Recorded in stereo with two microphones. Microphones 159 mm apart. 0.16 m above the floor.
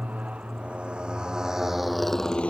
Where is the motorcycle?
10° right (ahead or behind); by 2.5 s 10° left (ahead or behind).